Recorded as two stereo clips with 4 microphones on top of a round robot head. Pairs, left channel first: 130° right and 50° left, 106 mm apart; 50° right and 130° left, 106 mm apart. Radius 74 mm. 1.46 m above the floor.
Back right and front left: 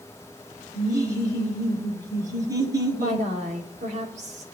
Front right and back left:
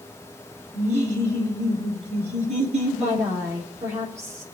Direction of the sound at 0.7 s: 105° left.